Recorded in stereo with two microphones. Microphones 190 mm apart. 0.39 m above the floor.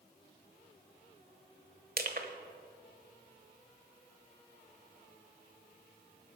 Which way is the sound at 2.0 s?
60° right (ahead or behind).